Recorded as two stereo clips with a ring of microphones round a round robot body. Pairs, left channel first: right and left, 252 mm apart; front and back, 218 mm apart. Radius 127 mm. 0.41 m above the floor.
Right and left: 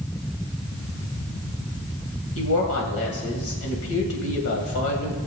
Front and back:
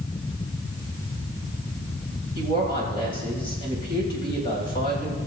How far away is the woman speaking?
About 2.5 m.